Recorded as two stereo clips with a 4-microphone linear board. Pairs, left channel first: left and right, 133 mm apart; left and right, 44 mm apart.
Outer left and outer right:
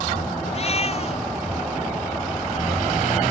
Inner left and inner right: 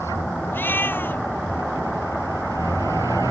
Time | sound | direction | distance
0.5 | a cat meowing | 45° left (ahead or behind) | ?